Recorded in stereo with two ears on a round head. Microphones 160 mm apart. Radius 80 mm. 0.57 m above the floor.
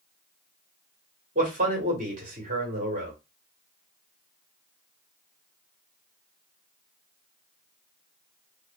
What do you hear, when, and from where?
1.4 s a man speaking: 45° right (ahead or behind), 1.5 m